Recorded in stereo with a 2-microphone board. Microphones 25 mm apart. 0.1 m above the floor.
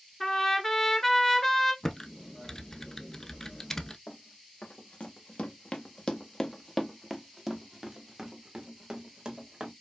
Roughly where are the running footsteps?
Left.